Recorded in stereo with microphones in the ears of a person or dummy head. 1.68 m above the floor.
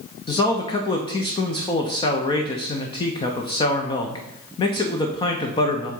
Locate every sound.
0.3 s a man speaking: 30° left (ahead or behind), 0.7 m